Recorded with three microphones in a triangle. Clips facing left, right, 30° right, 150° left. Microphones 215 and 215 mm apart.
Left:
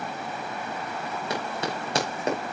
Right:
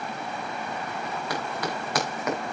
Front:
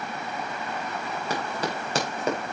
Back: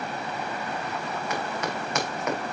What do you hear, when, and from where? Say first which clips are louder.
1.3 s running footsteps: left 1 dB, front 2 dB; 25° left, 4 m; by 2.4 s 30° left, 3 m